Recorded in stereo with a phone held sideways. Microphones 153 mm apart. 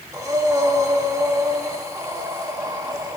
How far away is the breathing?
About 1.6 m.